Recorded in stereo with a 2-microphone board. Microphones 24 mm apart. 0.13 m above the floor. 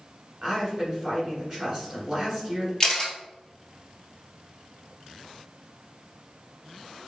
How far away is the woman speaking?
About 1.5 m.